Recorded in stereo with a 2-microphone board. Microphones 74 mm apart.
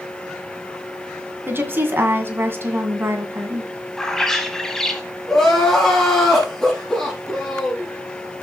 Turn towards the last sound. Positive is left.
turn(degrees=5)  # may be behind; listen again after turning